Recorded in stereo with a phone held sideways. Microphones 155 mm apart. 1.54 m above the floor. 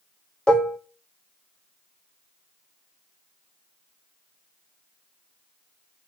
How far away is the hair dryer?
I don't hear a hair dryer.